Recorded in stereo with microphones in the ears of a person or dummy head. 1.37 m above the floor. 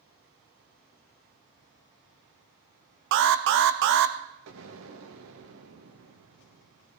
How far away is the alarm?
About 0.8 m.